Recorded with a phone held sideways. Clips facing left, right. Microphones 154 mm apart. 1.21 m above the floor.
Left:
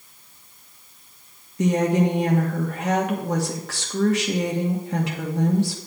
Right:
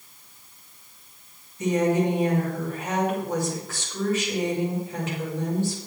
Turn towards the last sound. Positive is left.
turn(degrees=80)